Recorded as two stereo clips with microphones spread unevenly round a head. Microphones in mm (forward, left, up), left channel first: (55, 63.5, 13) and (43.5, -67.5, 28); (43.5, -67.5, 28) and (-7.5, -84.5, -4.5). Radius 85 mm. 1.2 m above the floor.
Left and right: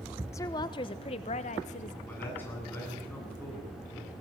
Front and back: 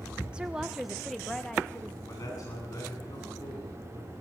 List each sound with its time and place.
0.3 s a woman speaking: 150° left, 1.0 m; by 2.0 s 105° left, 1.5 m
2.1 s a man speaking: 10° left, 9 m